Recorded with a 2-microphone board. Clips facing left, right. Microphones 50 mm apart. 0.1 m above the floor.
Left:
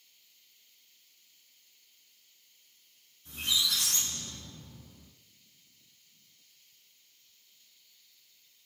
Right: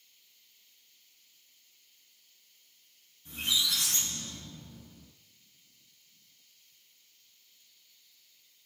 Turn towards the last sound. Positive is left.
turn(degrees=-30)  # may be behind; listen again after turning